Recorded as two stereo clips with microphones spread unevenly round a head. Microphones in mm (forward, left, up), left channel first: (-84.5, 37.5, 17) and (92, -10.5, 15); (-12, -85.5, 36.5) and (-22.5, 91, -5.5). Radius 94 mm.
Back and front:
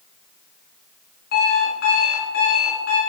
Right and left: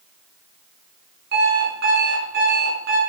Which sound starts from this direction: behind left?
An alarm clock, at 1.3 s.